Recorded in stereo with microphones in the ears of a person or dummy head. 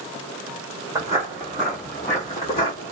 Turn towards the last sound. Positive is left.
turn(degrees=30)  # may be behind; listen again after turning